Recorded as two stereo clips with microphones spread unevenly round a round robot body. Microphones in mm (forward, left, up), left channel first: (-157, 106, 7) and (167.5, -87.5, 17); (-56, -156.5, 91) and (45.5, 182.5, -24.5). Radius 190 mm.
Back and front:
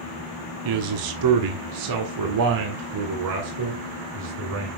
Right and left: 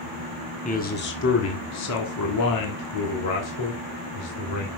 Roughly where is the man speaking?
Ahead right.